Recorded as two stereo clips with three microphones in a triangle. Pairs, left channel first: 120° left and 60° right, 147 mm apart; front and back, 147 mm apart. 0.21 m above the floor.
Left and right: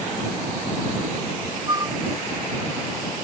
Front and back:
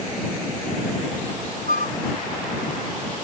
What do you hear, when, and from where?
1.7 s a flute: straight ahead